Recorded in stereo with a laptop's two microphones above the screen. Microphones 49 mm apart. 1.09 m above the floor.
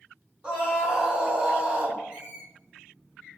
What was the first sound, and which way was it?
A scream, 20° right (ahead or behind).